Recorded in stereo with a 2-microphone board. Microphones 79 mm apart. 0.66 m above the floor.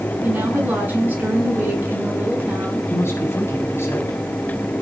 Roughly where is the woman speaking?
Right.